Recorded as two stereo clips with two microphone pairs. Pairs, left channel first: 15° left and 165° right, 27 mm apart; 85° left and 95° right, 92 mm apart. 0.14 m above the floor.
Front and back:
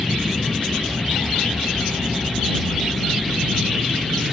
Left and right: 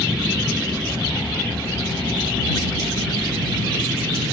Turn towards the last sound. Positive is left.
turn(degrees=-85)